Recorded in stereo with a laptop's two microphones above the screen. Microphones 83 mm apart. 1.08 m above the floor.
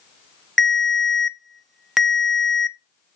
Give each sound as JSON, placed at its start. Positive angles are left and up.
{"t": 0.6, "sound": "a ringtone", "side_deg": 0, "distance_m": 0.5}